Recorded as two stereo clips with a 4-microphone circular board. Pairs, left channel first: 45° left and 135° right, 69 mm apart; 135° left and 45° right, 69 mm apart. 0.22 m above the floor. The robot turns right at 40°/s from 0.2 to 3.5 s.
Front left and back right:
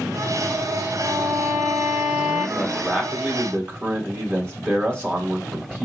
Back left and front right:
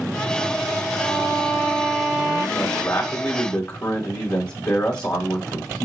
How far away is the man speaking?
About 1.7 m.